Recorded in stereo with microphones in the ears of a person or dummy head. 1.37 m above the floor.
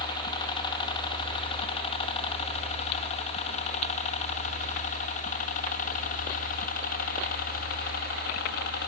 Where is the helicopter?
30° left (ahead or behind); by 8.9 s 60° left (ahead or behind).